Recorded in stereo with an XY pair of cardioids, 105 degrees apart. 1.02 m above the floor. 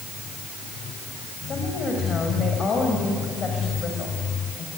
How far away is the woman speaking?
About 6 m.